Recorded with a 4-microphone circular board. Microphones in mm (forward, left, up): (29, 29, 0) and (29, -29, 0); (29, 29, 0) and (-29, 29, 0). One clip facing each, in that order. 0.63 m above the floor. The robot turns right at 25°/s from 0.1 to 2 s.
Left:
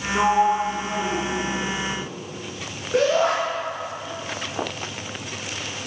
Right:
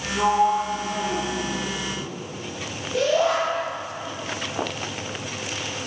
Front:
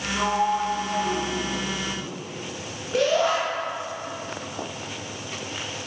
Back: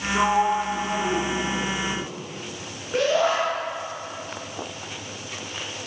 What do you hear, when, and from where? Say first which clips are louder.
0.1 s a sliding door: left 1 dB, back 2 dB; 125° left, 3.5 m; by 2.1 s 170° left, 3.5 m
2.9 s a shout: left 2 dB, even; 105° left, 7.5 m